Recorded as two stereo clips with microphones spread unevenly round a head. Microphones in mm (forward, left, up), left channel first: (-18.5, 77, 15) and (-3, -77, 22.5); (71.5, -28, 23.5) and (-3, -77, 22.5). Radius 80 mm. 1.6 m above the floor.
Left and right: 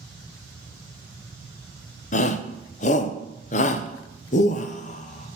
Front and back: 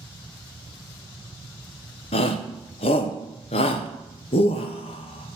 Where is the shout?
50° left, 0.6 m.